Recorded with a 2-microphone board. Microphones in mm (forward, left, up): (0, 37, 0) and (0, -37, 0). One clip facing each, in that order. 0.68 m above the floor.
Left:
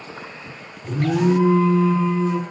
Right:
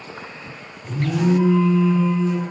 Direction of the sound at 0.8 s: 50° left (ahead or behind).